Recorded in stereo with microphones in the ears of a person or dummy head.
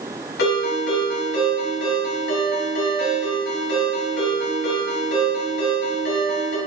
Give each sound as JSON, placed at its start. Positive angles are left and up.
{"t": 0.4, "sound": "a ringtone", "side_deg": 75, "distance_m": 4.5}